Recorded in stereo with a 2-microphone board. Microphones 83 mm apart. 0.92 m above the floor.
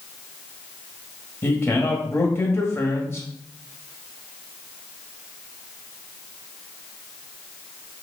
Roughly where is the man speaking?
Left.